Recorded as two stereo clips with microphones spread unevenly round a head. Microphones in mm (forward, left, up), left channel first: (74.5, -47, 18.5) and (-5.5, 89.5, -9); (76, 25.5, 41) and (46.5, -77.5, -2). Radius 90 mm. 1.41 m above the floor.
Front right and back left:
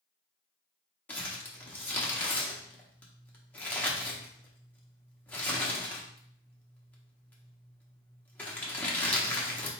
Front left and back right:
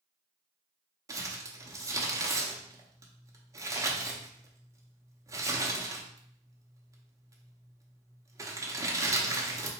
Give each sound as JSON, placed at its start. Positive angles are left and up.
{"t": 1.1, "sound": "crumpling", "azimuth_deg": -30, "distance_m": 0.9}